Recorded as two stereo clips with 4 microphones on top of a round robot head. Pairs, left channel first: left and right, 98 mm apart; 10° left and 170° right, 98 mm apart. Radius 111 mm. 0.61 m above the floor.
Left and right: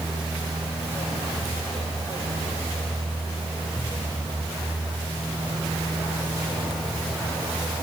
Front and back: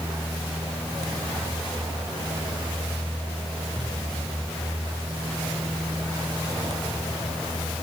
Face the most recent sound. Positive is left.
No sound to turn to.